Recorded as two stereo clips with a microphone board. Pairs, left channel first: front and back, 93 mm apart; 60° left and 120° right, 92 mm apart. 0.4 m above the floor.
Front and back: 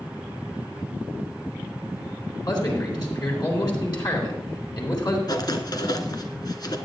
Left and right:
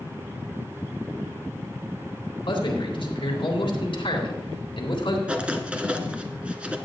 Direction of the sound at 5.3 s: 40° right.